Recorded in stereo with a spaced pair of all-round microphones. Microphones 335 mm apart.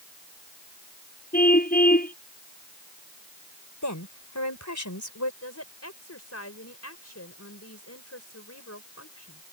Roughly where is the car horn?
Left.